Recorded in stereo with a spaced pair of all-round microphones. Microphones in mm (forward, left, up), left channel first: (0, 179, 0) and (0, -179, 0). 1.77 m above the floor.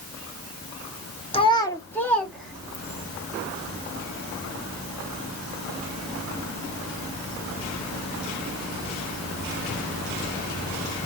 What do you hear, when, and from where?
1.3 s a child speaking: 15° left (ahead or behind), 0.7 m; by 3.1 s centre (ahead or behind), 2 m